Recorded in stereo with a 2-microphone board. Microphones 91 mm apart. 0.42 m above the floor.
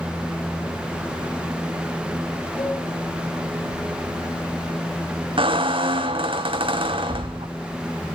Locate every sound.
2.6 s a cowbell: 80° left, 4.5 m
5.4 s a squeak: 70° right (ahead or behind), 1.1 m